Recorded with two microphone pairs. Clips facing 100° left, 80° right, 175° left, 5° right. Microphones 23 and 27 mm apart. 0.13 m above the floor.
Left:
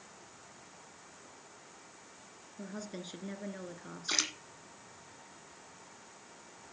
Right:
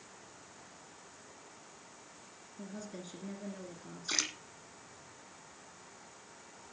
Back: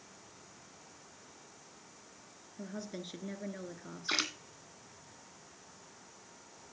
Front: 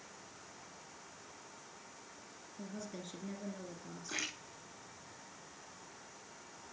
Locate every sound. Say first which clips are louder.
2.6 s a woman speaking: left 2 dB, back 3 dB; 140° left, 1.5 m
4.1 s a splash: left 2 dB, back 7 dB; 175° left, 1.5 m